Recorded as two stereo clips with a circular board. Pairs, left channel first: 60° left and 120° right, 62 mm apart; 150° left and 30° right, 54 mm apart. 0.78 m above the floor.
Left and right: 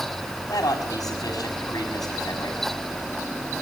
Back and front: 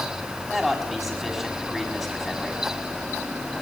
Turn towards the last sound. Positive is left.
turn(degrees=60)